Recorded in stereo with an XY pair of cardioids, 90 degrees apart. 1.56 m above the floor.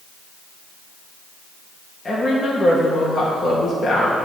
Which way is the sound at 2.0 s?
35° left.